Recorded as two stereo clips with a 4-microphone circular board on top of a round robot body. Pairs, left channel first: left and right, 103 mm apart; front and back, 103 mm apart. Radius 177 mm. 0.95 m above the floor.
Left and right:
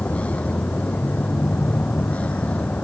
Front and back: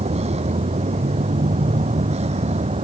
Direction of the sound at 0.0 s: 170° left.